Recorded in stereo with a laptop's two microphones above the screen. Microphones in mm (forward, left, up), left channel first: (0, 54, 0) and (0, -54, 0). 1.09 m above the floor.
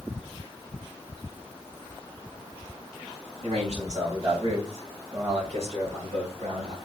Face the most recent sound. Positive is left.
turn(degrees=-60)  # may be behind; listen again after turning